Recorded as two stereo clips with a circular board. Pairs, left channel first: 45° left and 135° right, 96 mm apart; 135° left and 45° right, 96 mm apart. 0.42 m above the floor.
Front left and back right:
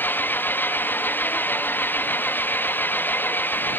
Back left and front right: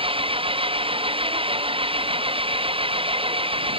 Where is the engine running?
25° right.